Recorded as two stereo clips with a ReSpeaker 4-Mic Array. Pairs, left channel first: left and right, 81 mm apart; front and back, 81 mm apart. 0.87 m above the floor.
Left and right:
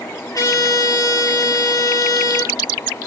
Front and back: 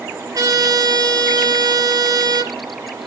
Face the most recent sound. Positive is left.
turn(degrees=140)